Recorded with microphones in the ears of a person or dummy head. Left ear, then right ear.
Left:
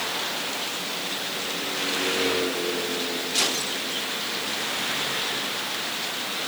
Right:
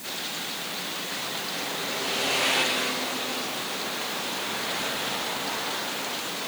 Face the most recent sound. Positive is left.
No sound to turn to.